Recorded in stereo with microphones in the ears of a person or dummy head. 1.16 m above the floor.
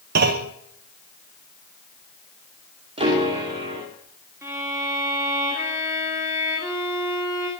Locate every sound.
0.1 s a clunk: 60° right (ahead or behind), 0.9 m
3.0 s a piano: 40° right (ahead or behind), 2.5 m
4.4 s a violin: 20° right (ahead or behind), 3 m